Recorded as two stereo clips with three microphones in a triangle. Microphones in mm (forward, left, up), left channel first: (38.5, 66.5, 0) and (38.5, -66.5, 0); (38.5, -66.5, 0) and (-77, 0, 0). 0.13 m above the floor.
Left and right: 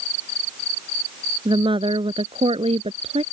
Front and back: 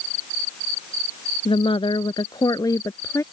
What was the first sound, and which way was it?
A woman speaking, 55° right.